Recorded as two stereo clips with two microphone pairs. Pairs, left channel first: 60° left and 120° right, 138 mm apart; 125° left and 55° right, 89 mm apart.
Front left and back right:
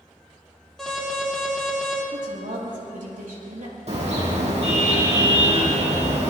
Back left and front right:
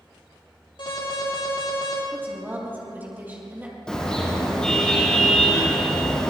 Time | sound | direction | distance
0.8 | an alarm | 150° left | 6.5 m
2.1 | a woman speaking | 125° right | 5.5 m
3.9 | a car horn | 155° right | 4.5 m